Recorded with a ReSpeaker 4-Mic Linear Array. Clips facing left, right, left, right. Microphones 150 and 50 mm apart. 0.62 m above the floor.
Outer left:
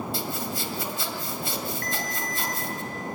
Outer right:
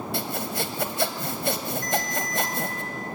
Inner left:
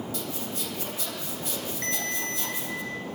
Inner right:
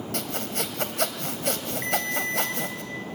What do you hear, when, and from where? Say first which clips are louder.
0.1 s sawing: outer right 2 dB, inner right 3 dB; 65° right (ahead or behind), 2 m
1.8 s a ringtone: outer right 4 dB, inner right 6 dB; 15° right (ahead or behind), 5 m